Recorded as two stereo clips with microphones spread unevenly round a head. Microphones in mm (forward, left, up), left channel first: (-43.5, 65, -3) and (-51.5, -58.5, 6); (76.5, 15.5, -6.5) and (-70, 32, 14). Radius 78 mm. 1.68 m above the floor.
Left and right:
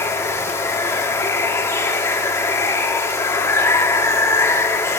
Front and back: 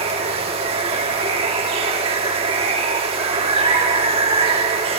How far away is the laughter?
No laughter in this recording.